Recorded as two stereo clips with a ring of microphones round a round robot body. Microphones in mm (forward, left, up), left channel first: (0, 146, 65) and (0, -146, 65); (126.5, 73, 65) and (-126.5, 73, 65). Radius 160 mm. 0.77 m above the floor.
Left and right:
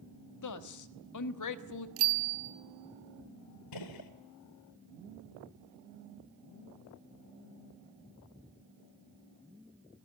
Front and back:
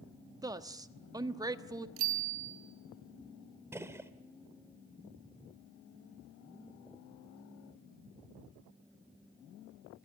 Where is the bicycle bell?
135° right, 4 m.